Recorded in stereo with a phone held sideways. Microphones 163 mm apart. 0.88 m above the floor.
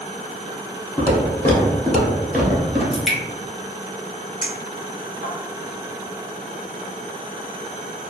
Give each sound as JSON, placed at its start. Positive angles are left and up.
{"t": 1.0, "sound": "footsteps", "side_deg": 25, "distance_m": 1.1}
{"t": 2.9, "sound": "dripping", "side_deg": 0, "distance_m": 0.9}
{"t": 4.4, "sound": "a clink", "side_deg": -85, "distance_m": 1.5}